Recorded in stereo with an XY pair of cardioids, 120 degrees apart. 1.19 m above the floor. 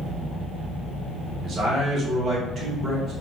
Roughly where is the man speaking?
Ahead right.